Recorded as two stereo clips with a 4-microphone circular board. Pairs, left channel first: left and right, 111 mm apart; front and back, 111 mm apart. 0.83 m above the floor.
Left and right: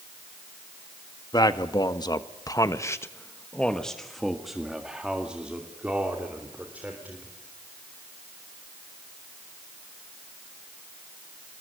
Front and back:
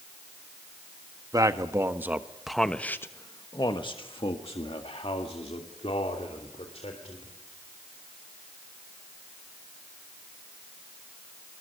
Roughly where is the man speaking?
Behind left.